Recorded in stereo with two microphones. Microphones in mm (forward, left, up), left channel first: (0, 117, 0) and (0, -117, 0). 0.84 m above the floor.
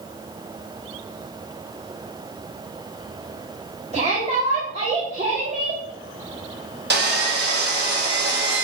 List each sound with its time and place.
3.9 s a shout: 25° right (ahead or behind), 2.5 m
6.9 s sawing: 45° right (ahead or behind), 2.5 m